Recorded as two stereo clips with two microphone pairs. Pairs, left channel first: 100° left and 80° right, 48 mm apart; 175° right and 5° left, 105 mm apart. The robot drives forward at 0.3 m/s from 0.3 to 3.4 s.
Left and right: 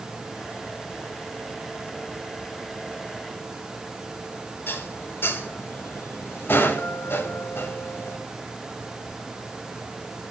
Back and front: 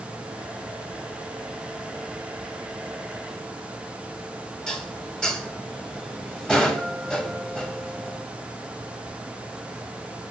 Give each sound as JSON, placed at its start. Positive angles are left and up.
{"t": 4.7, "sound": "dishes clattering", "azimuth_deg": 100, "distance_m": 0.6}